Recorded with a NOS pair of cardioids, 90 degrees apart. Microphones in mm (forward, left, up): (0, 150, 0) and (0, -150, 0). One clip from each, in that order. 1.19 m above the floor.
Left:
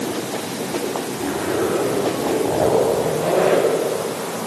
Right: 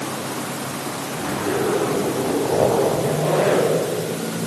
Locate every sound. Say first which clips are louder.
1.1 s a zipper: right 1 dB; 5° left, 9 m